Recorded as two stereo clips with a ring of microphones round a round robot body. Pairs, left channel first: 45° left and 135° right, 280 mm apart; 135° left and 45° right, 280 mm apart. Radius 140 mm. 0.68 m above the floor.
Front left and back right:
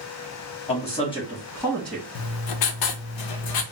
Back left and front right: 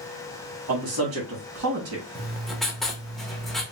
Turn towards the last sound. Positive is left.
turn(degrees=45)